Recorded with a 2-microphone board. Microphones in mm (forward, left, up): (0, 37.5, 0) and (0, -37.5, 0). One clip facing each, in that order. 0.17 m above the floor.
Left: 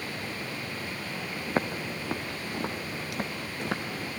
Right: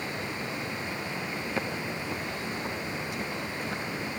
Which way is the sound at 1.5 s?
45° left (ahead or behind).